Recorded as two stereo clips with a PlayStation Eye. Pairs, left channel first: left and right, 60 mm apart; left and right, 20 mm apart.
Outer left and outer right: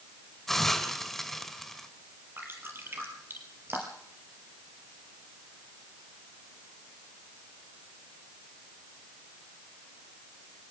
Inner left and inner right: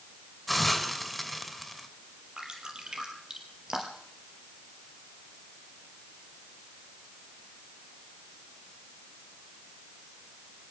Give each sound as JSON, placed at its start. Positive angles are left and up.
{"t": 0.5, "sound": "a hiss", "side_deg": 5, "distance_m": 2.0}
{"t": 2.4, "sound": "dripping", "side_deg": -40, "distance_m": 4.5}